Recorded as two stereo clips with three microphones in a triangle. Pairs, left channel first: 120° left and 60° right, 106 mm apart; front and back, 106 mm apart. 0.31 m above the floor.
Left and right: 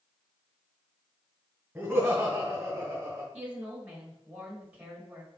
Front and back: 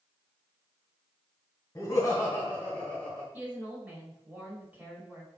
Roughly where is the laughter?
Ahead.